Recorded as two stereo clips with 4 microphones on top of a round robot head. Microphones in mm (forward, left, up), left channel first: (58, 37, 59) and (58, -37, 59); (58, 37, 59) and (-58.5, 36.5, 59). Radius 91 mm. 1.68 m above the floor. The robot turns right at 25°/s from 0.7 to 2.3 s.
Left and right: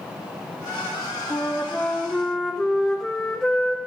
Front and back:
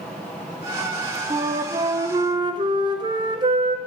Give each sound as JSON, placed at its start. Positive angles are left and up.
{"t": 1.3, "sound": "a flute", "azimuth_deg": 145, "distance_m": 0.8}